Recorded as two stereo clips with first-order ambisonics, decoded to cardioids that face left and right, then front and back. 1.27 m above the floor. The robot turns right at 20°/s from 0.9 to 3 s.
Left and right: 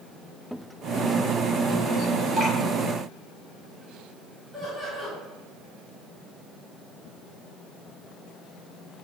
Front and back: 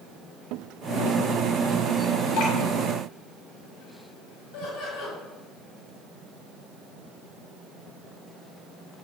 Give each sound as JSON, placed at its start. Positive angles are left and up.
{"t": 2.4, "sound": "dripping", "azimuth_deg": 0, "distance_m": 2.5}
{"t": 4.5, "sound": "laughter", "azimuth_deg": 5, "distance_m": 2.5}